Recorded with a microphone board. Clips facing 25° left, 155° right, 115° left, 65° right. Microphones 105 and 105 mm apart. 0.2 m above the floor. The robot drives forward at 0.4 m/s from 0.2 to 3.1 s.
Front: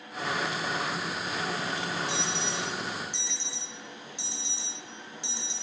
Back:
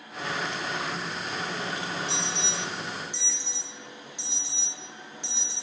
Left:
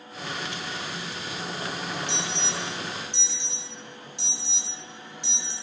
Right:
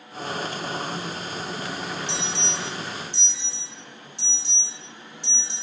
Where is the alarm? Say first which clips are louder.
Even, right 1 dB; 110° left, 1.2 m; by 5.5 s 130° left, 1.4 m.